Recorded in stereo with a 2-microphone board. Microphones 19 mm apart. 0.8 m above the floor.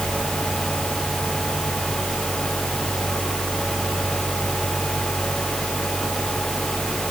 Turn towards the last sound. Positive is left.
No sound to turn to.